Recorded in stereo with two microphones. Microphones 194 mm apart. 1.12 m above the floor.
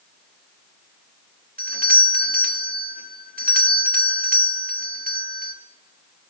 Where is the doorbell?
50° right (ahead or behind), 0.9 m.